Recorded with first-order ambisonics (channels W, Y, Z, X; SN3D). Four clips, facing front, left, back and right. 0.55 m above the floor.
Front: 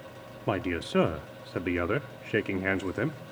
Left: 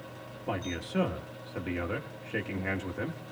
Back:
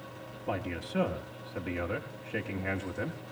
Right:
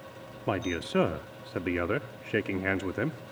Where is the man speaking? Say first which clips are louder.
Right 4 dB, front 6 dB; 35° right, 0.8 m.